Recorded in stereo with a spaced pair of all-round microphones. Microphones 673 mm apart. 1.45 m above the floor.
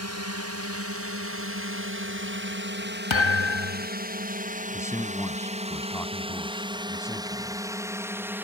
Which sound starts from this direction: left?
A thud, at 3.1 s.